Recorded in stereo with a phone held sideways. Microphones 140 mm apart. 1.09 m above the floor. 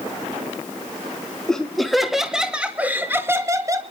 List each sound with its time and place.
1.5 s laughter: 5° left (ahead or behind), 2.5 m; by 3.8 s 25° right (ahead or behind), 1.9 m